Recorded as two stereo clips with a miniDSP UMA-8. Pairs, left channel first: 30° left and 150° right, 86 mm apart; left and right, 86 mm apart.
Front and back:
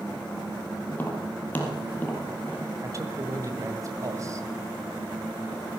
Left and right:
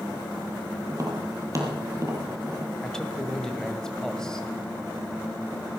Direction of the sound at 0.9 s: 40° right.